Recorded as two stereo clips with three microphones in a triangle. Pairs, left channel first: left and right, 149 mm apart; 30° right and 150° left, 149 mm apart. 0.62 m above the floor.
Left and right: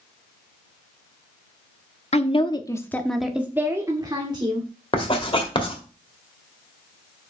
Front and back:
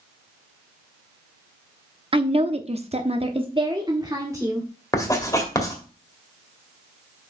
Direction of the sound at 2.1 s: 110° left.